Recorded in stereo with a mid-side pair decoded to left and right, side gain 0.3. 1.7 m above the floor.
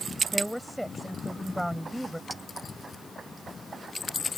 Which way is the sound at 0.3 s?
Straight ahead.